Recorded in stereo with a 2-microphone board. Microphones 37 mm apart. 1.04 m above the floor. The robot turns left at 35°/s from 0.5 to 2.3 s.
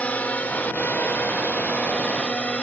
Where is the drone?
45° left (ahead or behind); by 2.6 s 35° left (ahead or behind).